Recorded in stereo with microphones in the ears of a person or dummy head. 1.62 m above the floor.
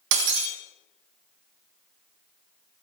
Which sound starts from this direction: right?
Breaking glass, at 0.1 s.